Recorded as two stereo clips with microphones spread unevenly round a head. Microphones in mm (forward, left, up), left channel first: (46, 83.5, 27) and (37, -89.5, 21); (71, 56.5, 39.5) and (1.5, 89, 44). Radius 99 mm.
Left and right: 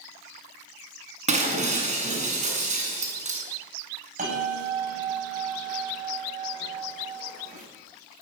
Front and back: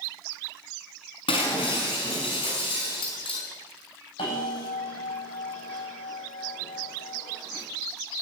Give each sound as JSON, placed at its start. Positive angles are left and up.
{"t": 1.3, "sound": "breaking glass", "azimuth_deg": -45, "distance_m": 6.0}
{"t": 4.2, "sound": "a bell", "azimuth_deg": -50, "distance_m": 10.0}